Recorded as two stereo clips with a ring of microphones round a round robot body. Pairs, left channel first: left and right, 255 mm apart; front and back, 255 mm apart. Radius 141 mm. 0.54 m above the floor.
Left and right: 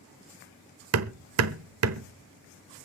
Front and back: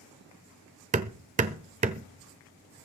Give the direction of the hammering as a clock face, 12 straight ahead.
4 o'clock.